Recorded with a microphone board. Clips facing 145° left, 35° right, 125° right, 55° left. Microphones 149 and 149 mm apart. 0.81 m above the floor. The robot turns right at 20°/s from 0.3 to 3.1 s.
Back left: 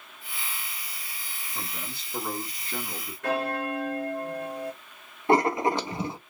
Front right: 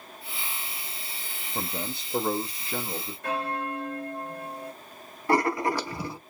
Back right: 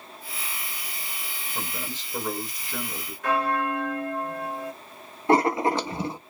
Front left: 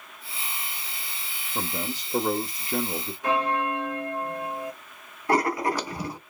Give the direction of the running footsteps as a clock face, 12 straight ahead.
I don't hear running footsteps.